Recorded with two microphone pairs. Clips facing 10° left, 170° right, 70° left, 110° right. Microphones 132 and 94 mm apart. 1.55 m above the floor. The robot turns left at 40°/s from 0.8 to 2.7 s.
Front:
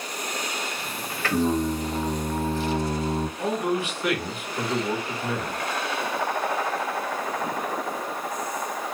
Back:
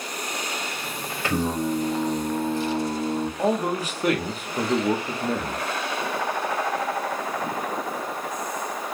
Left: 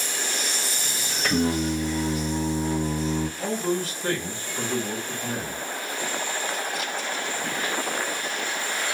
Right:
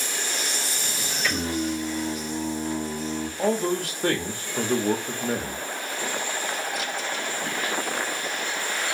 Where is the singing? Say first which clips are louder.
Front 2 dB, left 4 dB; 115° left, 0.6 m; by 3.3 s 60° left, 0.6 m.